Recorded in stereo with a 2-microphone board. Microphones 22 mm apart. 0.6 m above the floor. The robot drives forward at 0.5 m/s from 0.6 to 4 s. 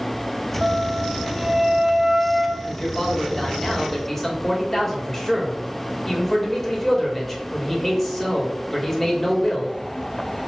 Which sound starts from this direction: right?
A flute, at 0.6 s.